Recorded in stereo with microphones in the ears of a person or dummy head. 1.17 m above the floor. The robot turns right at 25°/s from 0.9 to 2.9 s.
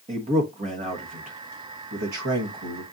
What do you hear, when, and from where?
0.1 s a man speaking: 30° right (ahead or behind), 1.3 m; by 2.8 s 80° right, 1.3 m